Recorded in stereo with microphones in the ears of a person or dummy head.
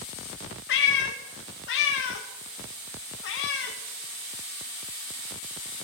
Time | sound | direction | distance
0.7 | a cat meowing | 65° left (ahead or behind) | 0.8 m